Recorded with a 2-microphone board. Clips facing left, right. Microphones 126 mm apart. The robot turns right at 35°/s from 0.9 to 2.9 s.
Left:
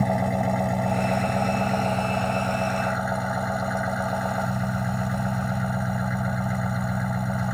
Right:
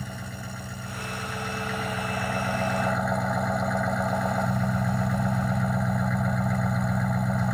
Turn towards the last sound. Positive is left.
turn(degrees=180)